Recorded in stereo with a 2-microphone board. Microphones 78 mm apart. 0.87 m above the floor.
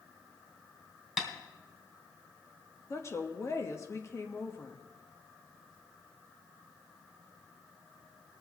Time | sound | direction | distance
1.2 | tapping | centre (ahead or behind) | 2.5 m
2.9 | a woman speaking | 40° left (ahead or behind) | 1.1 m